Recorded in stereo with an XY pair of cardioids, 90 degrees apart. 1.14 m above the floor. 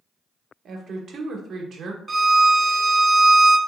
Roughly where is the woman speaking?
Ahead right.